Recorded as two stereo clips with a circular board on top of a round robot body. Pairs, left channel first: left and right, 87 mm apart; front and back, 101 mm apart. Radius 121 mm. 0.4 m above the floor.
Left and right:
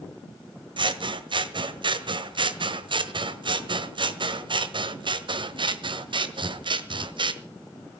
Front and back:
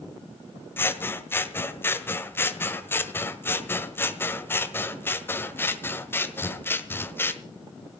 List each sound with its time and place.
0.8 s scissors: 70° right, 1.5 m